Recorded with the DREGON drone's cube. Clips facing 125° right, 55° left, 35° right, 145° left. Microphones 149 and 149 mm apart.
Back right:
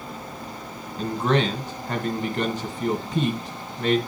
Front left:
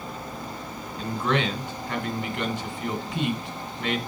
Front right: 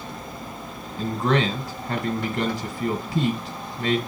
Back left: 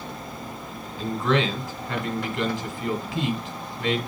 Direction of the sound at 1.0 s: 80° right.